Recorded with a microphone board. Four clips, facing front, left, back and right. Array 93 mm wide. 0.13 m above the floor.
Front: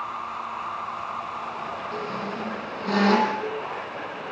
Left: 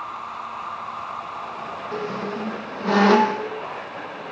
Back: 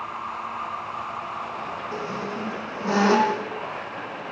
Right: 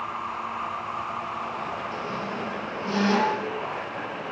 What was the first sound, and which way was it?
A squeak, 110° left.